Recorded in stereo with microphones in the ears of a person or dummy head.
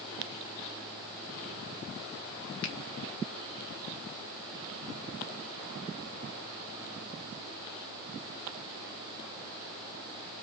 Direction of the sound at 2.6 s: 65° left (ahead or behind).